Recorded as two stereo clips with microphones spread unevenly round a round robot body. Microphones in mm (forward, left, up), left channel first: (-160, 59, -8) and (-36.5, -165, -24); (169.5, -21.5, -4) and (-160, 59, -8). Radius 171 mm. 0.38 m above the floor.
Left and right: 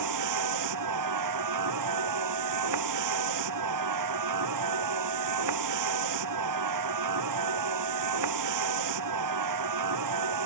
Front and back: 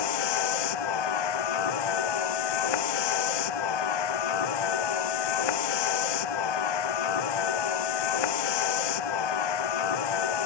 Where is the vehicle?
30° right.